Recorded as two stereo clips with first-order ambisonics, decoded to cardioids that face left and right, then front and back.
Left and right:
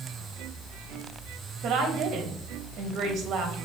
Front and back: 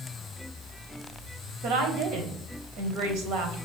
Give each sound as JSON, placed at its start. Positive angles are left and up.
{"t": 1.6, "sound": "a woman speaking", "azimuth_deg": -140, "distance_m": 1.5}